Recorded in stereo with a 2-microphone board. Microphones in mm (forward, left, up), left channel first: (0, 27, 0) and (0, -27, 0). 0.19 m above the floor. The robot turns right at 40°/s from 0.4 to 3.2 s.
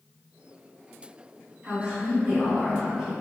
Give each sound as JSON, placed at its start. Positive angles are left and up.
{"t": 1.6, "sound": "a woman speaking", "azimuth_deg": -60, "distance_m": 1.6}